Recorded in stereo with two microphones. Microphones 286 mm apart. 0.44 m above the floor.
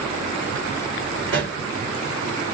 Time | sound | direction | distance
1.3 | a pop | 45° right (ahead or behind) | 2.0 m